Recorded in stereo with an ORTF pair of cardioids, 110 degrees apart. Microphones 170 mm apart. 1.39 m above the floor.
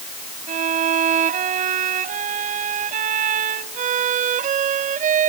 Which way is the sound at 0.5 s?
55° right.